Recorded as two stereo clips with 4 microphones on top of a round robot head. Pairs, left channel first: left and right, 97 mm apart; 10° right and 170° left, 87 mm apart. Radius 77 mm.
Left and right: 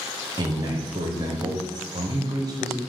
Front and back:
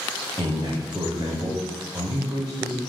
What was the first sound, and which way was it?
A man speaking, 130° right.